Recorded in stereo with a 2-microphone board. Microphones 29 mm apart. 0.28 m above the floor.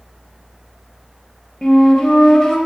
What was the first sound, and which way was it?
A flute, 25° left (ahead or behind).